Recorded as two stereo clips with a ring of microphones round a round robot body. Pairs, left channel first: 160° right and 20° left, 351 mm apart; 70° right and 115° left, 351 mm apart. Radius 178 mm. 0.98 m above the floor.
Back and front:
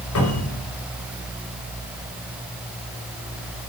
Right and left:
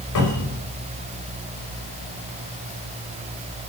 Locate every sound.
0.1 s a cupboard door: 105° right, 5.5 m